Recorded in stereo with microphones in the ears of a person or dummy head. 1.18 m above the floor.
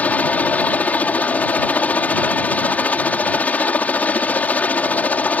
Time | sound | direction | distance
0.0 | a helicopter | 5° left (ahead or behind) | ?